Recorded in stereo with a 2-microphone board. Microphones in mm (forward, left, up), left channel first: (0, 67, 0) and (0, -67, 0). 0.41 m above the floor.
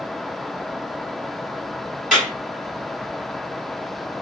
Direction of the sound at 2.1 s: 5° right (ahead or behind).